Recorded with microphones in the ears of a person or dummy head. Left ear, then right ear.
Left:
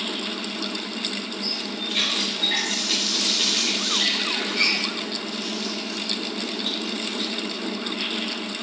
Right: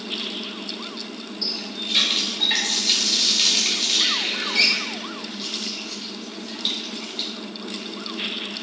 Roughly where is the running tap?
Right.